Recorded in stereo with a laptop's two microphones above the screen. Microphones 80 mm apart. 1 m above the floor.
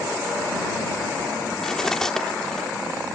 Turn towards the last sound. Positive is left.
turn(degrees=10)  # may be behind; listen again after turning